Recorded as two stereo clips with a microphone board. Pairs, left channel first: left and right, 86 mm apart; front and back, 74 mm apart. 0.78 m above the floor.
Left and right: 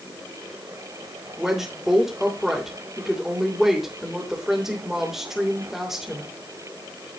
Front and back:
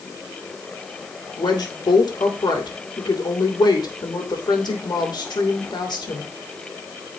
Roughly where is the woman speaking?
Ahead.